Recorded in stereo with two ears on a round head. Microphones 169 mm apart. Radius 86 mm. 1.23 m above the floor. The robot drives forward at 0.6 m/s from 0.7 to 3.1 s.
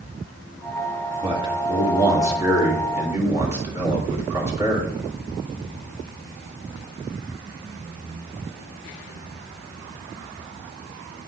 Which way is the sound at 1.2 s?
25° right (ahead or behind).